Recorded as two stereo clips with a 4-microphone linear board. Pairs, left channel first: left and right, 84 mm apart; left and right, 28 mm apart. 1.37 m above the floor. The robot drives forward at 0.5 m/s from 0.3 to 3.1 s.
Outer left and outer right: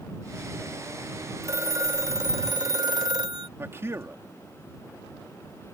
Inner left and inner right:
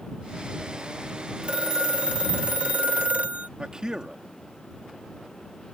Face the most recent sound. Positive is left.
turn(degrees=-30)  # may be behind; listen again after turning